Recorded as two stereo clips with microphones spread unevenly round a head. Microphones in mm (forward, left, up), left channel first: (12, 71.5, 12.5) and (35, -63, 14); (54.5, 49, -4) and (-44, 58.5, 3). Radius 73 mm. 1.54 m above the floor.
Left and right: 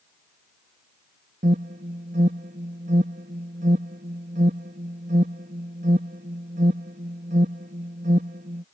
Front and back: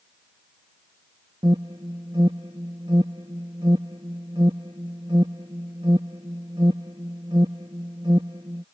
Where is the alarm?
120° right.